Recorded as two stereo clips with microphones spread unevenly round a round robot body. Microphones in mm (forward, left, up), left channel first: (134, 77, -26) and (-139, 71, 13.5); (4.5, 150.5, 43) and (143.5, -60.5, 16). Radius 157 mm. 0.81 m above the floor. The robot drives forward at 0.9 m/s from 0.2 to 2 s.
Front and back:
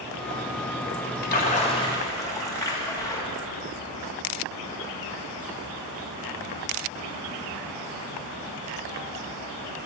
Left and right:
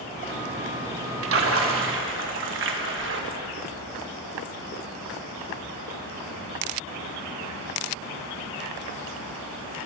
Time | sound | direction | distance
1.2 | a splash | 50° right | 1.9 m